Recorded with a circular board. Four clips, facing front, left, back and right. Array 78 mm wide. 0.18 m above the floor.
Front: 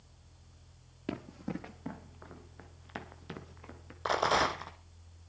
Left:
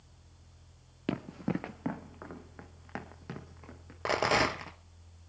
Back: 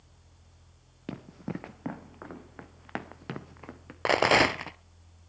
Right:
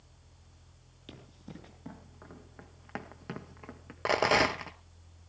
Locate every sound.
1.1 s running footsteps: 90° left, 1.3 m; by 4.0 s 160° right, 2.5 m
4.0 s a rattle: 175° right, 0.8 m